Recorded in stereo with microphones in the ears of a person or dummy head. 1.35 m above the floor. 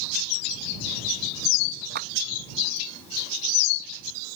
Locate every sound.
1.9 s a clap: 60° right (ahead or behind)